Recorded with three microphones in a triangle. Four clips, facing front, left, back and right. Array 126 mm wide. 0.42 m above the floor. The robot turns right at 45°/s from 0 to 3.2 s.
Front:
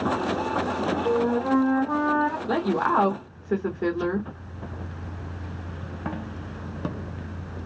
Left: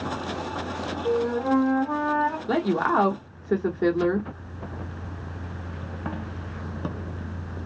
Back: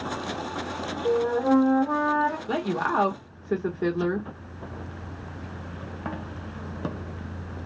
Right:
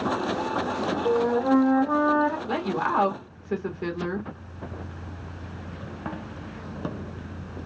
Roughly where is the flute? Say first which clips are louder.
Right 1 dB, back 2 dB; behind right.